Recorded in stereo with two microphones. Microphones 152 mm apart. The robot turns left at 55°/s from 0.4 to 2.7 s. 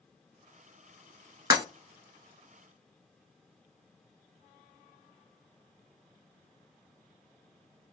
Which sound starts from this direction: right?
Breaking glass, at 1.5 s.